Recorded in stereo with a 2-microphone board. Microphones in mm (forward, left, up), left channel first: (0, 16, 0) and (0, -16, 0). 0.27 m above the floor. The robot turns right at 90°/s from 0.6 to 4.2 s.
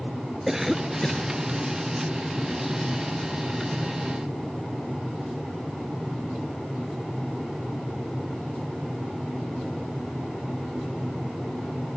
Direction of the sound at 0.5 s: 20° right.